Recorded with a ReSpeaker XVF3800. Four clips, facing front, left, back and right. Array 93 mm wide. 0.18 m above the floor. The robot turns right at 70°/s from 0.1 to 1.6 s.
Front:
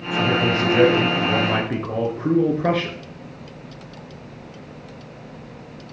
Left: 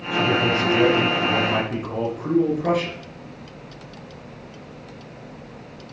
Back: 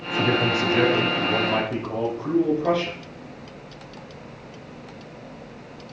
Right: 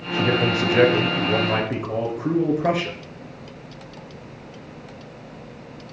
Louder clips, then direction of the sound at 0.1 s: Left 1 dB, front 2 dB; 130° right.